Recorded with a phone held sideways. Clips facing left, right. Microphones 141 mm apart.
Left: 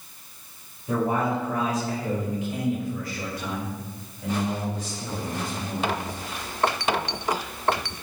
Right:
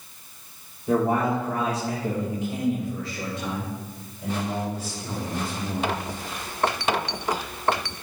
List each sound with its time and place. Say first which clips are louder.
0.9 s a man speaking: right 2 dB; 65° right (ahead or behind), 2.5 m; by 5.9 s 5° right (ahead or behind), 6 m